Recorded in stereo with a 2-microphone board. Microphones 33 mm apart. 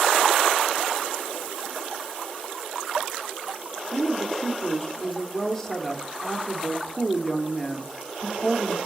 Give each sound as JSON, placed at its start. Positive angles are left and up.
{"t": 3.9, "sound": "a woman speaking", "side_deg": 20, "distance_m": 0.8}